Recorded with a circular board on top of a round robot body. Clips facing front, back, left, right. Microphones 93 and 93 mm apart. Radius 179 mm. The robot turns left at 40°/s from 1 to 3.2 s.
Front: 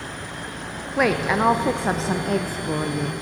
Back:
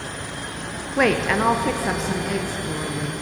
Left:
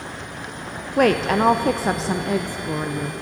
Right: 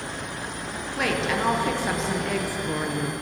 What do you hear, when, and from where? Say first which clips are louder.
1.0 s a woman speaking: back 1 dB, left 8 dB; 85° left, 0.5 m; by 3.1 s straight ahead, 0.5 m